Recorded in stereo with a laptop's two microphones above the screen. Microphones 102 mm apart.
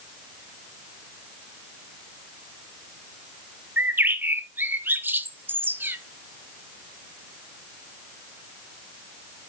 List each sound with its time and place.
3.8 s a bird: 20° right (ahead or behind), 0.5 m